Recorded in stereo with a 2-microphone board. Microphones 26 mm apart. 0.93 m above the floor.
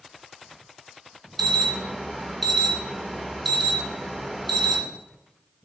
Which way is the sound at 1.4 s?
Centre (ahead or behind).